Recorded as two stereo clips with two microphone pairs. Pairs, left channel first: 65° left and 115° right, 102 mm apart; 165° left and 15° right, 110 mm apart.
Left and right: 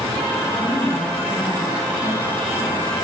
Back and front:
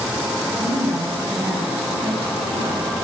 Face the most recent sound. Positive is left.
turn(degrees=15)